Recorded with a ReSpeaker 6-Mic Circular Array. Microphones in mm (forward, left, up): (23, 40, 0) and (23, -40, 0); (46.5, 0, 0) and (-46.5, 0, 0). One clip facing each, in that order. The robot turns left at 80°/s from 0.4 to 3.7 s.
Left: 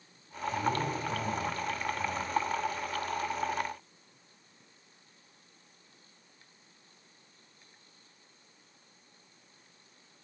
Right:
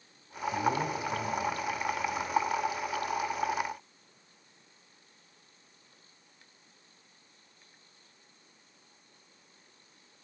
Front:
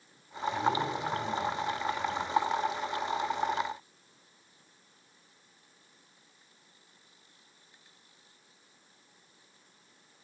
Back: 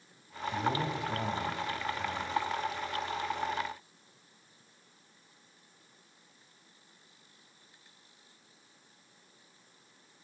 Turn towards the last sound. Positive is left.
turn(degrees=-15)